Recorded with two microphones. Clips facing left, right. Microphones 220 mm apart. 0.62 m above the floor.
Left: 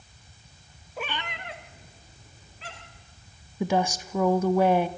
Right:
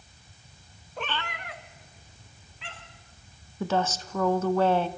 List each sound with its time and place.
1.0 s a cat meowing: 5° left (ahead or behind), 0.9 m; by 3.0 s 40° left (ahead or behind), 3.5 m
3.6 s a woman speaking: 10° left (ahead or behind), 1.0 m